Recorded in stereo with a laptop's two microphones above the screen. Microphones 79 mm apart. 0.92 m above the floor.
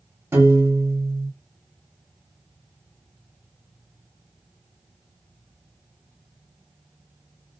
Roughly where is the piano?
Right.